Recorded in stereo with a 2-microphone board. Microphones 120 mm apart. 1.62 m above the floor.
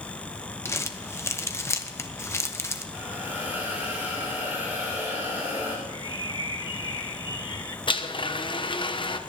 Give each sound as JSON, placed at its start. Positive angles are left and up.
{"t": 0.7, "sound": "crumpling", "side_deg": 20, "distance_m": 0.9}
{"t": 2.9, "sound": "a hiss", "side_deg": -10, "distance_m": 6.5}
{"t": 5.9, "sound": "a bird", "side_deg": 40, "distance_m": 1.0}
{"t": 7.9, "sound": "a blender", "side_deg": 45, "distance_m": 0.9}